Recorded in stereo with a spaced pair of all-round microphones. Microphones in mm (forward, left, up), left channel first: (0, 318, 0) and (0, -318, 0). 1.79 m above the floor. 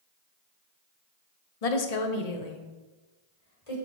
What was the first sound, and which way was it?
A woman speaking, 65° left (ahead or behind).